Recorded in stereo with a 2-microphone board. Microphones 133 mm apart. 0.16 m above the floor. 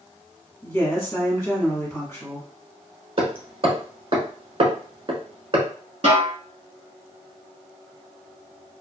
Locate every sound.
0.6 s a woman speaking: 20° left (ahead or behind), 1.7 m
3.2 s hammering: 45° right (ahead or behind), 0.8 m
6.0 s a snare drum: 50° right (ahead or behind), 1.1 m